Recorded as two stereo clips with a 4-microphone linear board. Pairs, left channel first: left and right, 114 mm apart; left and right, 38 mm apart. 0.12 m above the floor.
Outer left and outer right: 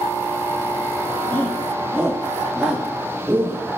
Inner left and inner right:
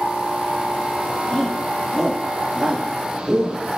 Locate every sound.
1.3 s a shout: 20° left (ahead or behind), 3.5 m; by 3.7 s 15° right (ahead or behind), 4.5 m